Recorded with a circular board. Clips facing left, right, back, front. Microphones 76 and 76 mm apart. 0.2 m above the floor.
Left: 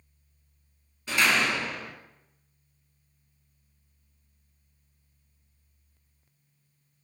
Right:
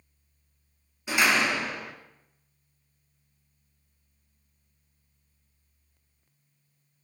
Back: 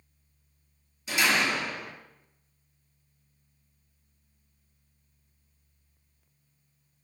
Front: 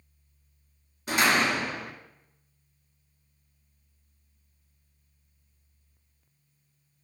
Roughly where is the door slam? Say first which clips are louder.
Right 1 dB, front 2 dB; ahead.